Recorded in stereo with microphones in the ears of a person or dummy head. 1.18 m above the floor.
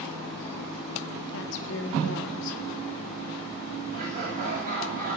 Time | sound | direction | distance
1.3 | a woman speaking | 70° left (ahead or behind) | 2 m
3.9 | laughter | 45° right (ahead or behind) | 7.5 m